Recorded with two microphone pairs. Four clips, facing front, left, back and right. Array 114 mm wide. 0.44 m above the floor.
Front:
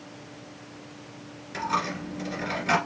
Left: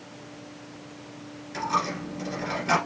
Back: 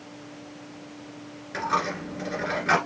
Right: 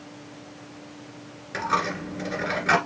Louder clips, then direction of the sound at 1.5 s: Right 1 dB, back 2 dB; 120° right.